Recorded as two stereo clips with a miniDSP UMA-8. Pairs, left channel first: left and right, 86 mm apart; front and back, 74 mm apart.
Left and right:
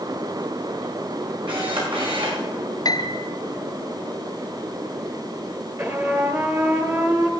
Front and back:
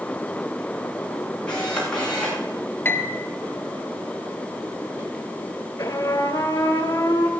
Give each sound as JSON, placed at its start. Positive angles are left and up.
{"t": 1.5, "sound": "a camera shutter", "azimuth_deg": -80, "distance_m": 9.0}
{"t": 2.9, "sound": "a piano", "azimuth_deg": 60, "distance_m": 1.1}
{"t": 5.8, "sound": "a trumpet", "azimuth_deg": -35, "distance_m": 2.0}